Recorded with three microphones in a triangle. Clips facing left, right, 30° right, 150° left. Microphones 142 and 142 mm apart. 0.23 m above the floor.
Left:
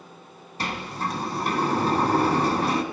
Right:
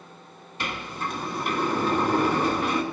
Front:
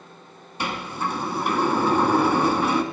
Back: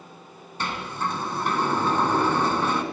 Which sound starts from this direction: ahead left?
A sliding door, at 0.6 s.